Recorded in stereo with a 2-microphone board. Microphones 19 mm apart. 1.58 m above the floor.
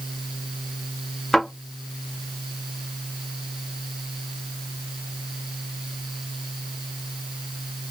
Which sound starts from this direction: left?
A thud, at 1.3 s.